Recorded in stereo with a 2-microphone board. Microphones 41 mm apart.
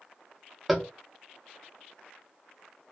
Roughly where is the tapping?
Centre.